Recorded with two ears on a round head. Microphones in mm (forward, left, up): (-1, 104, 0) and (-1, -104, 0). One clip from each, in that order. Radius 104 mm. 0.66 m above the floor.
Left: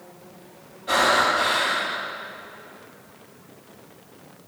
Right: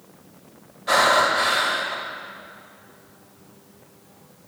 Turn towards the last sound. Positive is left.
turn(degrees=-60)  # may be behind; listen again after turning